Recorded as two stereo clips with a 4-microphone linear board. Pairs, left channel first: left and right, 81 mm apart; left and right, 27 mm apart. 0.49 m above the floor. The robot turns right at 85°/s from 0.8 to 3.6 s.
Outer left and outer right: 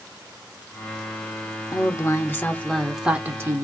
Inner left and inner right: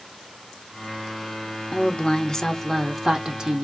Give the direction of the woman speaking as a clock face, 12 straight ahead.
9 o'clock.